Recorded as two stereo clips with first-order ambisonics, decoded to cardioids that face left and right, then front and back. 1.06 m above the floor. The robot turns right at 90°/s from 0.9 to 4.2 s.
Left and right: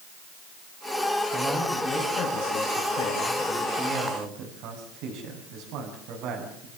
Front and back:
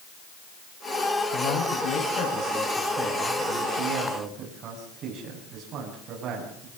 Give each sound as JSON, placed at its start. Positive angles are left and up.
{"t": 1.3, "sound": "a man speaking", "azimuth_deg": -25, "distance_m": 7.5}